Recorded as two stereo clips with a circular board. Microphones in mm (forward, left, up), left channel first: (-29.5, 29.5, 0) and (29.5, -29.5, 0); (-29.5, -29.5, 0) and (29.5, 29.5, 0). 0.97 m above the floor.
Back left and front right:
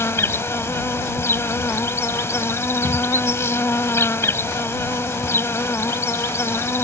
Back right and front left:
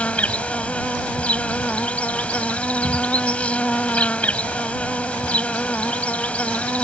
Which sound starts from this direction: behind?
An insect, at 0.0 s.